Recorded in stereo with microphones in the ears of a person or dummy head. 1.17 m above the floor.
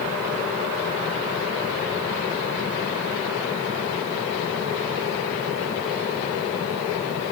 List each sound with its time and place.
Only background noise.